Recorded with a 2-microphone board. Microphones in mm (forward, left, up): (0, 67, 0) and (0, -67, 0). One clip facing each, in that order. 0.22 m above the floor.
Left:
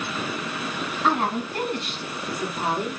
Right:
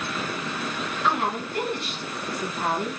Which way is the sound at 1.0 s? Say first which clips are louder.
Left 2 dB; 45° left (ahead or behind).